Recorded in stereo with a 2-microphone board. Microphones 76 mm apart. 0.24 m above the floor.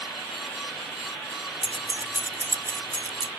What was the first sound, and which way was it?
Keys jangling, centre (ahead or behind).